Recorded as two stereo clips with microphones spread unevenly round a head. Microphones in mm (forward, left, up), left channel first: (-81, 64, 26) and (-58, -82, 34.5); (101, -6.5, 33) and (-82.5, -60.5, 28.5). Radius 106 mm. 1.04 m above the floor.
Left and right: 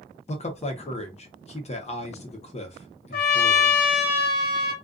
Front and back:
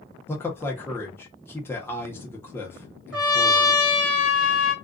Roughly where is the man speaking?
Left.